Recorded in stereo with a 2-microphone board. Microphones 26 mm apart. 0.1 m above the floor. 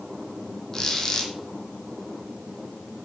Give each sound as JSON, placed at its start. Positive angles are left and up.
{"t": 0.7, "sound": "a squeak", "side_deg": 20, "distance_m": 1.4}